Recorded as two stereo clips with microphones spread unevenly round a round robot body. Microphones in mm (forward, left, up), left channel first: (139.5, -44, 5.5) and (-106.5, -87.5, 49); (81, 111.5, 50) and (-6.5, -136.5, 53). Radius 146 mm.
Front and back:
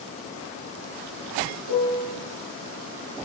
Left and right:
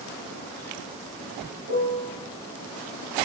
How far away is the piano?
About 3.5 m.